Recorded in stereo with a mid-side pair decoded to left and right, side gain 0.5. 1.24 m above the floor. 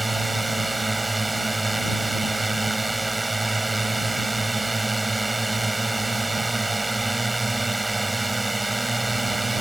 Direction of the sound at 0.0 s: 15° right.